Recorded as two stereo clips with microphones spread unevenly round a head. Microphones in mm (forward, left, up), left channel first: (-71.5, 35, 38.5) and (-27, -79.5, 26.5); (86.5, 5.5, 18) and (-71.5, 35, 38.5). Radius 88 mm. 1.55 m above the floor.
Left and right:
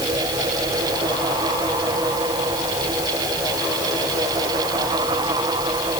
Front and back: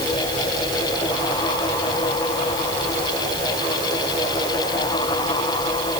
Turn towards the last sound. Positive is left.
No sound to turn to.